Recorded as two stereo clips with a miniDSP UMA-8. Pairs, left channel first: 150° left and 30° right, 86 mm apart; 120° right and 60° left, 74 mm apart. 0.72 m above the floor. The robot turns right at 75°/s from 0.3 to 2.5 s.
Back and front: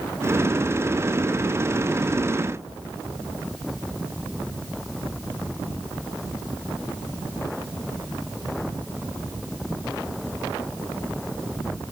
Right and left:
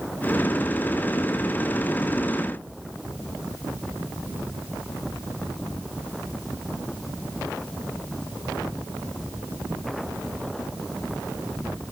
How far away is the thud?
No thud in this recording.